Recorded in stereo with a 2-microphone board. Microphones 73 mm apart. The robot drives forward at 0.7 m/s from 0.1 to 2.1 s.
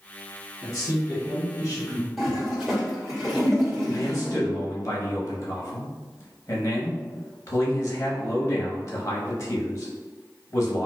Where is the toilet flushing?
5° right (ahead or behind), 1.5 m.